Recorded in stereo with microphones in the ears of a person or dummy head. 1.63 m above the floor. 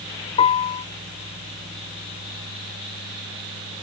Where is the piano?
30° left (ahead or behind).